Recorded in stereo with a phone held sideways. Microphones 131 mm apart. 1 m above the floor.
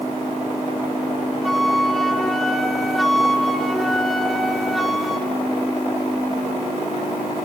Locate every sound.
1.4 s a flute: centre (ahead or behind), 3 m